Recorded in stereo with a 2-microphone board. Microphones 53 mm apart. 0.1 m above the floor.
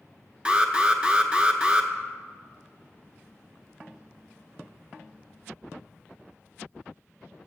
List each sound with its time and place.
0.5 s an alarm: 15° right (ahead or behind), 0.8 m